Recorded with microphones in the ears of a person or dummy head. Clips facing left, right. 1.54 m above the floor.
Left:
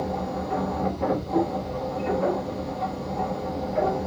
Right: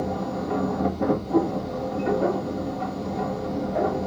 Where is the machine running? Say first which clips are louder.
Right 1 dB; 70° right (ahead or behind), 1.7 m.